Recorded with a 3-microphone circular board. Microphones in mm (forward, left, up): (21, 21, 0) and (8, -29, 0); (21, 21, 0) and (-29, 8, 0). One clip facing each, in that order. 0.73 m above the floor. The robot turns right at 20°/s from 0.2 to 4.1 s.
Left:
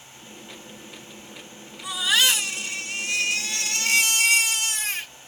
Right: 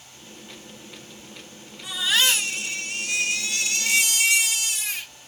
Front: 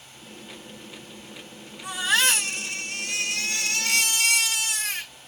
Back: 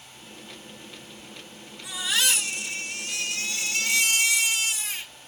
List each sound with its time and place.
1.8 s a baby crying: 10° right, 1.6 m; by 5.1 s 35° left, 1.6 m